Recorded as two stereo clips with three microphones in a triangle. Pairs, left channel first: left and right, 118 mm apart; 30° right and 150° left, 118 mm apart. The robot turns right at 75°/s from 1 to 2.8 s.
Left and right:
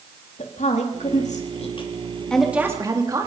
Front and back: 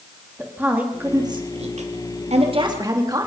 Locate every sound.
0.4 s a woman speaking: 75° left, 3 m; by 3.3 s 150° right, 3 m